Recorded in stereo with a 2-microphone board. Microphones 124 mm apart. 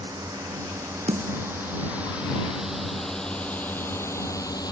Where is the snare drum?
65° right (ahead or behind).